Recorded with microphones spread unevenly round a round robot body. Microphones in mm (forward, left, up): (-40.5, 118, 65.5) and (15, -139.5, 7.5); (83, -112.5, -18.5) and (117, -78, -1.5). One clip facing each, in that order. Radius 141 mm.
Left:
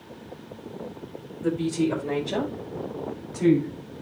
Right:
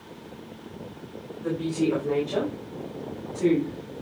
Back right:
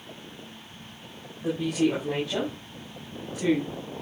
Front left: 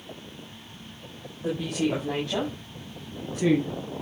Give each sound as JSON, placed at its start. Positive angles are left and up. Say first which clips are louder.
{"t": 1.4, "sound": "a woman speaking", "louder": "left 1 dB, back right 2 dB", "azimuth_deg": 145, "distance_m": 5.0}